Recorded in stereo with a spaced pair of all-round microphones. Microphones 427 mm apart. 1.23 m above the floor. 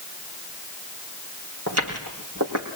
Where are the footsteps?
35° right (ahead or behind), 4 m.